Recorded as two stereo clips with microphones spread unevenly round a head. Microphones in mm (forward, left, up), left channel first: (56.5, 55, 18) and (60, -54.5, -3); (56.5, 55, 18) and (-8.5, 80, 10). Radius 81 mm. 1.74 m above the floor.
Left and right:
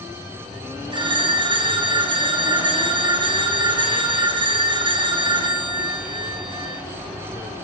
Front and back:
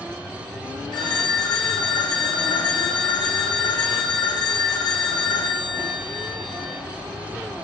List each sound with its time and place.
0.9 s a phone ringing: 40° right, 3 m